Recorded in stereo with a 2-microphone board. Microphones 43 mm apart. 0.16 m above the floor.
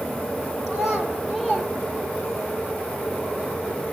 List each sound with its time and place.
0.7 s a child speaking: 15° right (ahead or behind), 3 m; by 2.5 s 5° left (ahead or behind), 4 m